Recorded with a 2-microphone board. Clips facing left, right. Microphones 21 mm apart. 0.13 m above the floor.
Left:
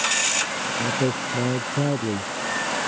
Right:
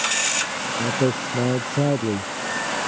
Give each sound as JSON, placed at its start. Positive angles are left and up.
{"t": 0.8, "sound": "a man speaking", "side_deg": -50}